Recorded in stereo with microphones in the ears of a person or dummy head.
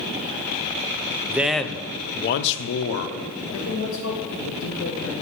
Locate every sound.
1.3 s a man speaking: 15° right (ahead or behind), 0.7 m; by 3.1 s 85° left, 0.8 m
3.5 s a man speaking: 70° left (ahead or behind), 1.9 m